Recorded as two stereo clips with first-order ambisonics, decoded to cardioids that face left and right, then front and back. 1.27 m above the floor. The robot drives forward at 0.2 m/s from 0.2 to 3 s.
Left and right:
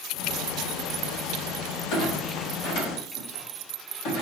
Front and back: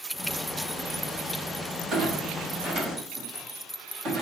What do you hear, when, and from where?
1.9 s a clunk: 110° left, 1.3 m; by 4.2 s 120° left, 1.4 m